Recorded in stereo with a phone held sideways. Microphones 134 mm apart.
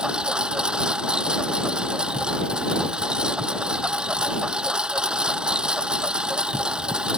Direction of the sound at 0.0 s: 5° right (ahead or behind).